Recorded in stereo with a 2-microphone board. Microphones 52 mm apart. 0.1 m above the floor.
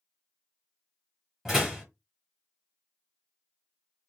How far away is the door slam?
About 1.6 m.